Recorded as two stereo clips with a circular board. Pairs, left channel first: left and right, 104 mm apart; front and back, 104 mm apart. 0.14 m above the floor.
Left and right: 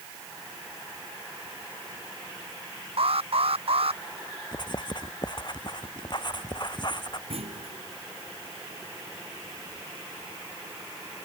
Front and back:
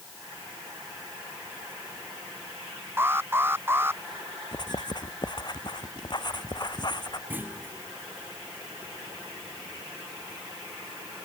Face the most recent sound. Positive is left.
turn(degrees=-110)